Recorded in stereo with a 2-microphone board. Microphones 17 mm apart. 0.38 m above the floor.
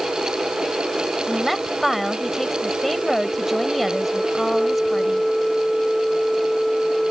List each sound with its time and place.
1.3 s a woman speaking: centre (ahead or behind)